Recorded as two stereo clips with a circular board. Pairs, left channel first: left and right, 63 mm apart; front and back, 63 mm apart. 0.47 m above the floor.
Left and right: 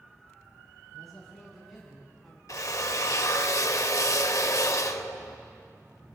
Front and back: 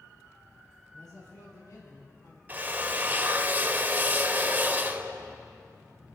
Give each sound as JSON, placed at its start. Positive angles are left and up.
{"t": 0.9, "sound": "a man speaking", "azimuth_deg": 0, "distance_m": 4.0}
{"t": 2.5, "sound": "a drill", "azimuth_deg": 120, "distance_m": 0.6}